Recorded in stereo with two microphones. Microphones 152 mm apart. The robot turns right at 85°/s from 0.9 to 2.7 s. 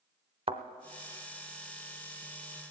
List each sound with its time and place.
0.5 s a thud: 35° right (ahead or behind), 0.6 m